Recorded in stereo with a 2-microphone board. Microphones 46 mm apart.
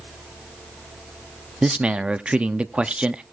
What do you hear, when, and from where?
1.6 s a man speaking: 25° right (ahead or behind), 0.5 m